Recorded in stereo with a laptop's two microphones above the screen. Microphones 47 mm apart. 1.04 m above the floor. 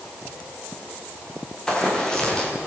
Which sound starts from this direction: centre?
Running footsteps, at 1.7 s.